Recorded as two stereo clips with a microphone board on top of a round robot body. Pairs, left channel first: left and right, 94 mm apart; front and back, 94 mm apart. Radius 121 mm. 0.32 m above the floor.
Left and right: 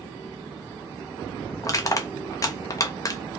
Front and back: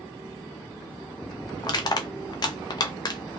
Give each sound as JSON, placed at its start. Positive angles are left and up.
{"t": 1.6, "sound": "crushing", "azimuth_deg": 40, "distance_m": 0.6}